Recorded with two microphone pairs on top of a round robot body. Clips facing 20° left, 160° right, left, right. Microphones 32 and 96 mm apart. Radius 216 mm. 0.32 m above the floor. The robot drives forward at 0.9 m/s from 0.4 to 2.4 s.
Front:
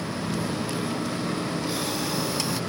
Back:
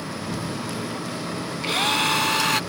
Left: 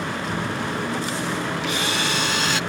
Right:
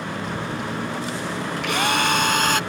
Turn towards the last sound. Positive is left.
turn(degrees=-130)